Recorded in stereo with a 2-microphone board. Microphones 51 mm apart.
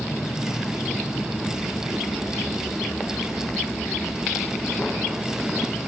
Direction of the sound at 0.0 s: 75° left (ahead or behind).